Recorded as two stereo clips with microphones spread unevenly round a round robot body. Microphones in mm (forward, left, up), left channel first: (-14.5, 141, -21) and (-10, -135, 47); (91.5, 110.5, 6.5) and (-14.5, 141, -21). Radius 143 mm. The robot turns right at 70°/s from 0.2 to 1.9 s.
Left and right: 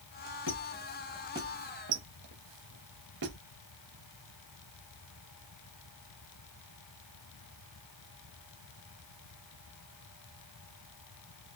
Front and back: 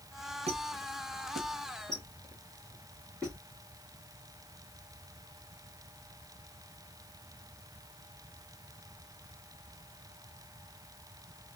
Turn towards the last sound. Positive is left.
turn(degrees=-115)